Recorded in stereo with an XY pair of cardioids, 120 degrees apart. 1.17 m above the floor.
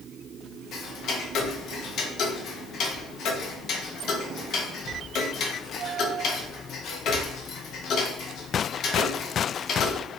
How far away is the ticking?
About 0.5 m.